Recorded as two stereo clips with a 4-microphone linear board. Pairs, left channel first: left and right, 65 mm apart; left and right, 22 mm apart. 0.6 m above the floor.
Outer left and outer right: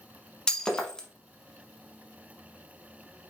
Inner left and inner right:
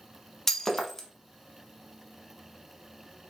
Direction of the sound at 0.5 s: 15° left (ahead or behind).